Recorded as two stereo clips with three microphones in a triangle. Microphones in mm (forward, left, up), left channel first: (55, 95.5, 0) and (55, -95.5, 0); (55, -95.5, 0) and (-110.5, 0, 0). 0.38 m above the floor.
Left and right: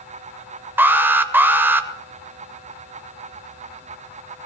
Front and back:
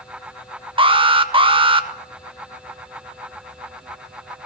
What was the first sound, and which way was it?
An alarm, 165° right.